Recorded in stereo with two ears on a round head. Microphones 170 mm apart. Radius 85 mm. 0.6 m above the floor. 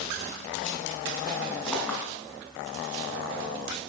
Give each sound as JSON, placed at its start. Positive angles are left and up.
{"t": 1.7, "sound": "a clink", "side_deg": 5, "distance_m": 4.0}